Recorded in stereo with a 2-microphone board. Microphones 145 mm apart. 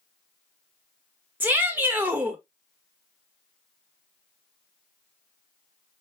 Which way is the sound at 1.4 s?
15° right (ahead or behind).